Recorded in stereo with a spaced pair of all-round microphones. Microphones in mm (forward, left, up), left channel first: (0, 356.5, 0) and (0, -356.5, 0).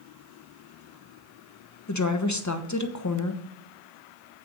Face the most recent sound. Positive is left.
turn(degrees=25)  # may be behind; listen again after turning